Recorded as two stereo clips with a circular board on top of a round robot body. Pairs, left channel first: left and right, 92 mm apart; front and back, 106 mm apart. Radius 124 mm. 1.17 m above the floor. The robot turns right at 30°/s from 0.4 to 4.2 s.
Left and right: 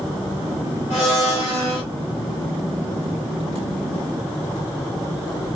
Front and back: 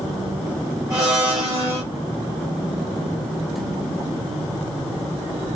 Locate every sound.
0.9 s a blender: 125° left, 1.0 m; by 1.8 s 155° left, 1.0 m